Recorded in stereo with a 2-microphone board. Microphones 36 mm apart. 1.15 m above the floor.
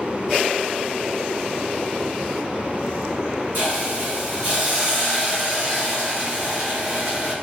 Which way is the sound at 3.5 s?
60° right (ahead or behind).